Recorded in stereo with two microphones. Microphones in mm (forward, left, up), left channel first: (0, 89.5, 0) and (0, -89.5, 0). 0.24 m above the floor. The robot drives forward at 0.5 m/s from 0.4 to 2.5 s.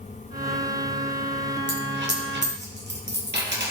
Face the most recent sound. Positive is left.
turn(degrees=-80)